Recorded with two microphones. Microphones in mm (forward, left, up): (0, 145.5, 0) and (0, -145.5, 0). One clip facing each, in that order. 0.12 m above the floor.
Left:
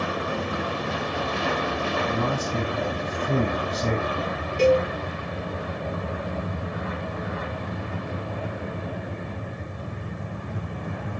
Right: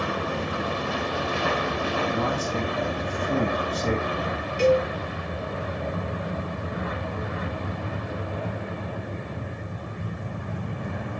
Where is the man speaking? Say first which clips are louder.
Even; 50° left (ahead or behind), 5 m.